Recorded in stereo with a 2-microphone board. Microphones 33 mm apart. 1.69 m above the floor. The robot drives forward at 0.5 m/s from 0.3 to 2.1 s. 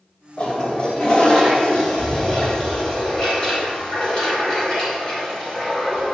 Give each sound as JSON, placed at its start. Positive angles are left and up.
{"t": 0.4, "sound": "a toilet flushing", "side_deg": 30, "distance_m": 1.9}